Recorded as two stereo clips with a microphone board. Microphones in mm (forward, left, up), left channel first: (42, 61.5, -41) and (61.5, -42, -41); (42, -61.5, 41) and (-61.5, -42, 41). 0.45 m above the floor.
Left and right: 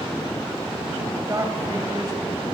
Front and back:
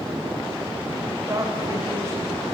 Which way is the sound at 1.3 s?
135° right.